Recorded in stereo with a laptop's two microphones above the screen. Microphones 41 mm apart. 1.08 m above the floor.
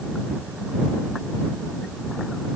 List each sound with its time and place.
Only background noise.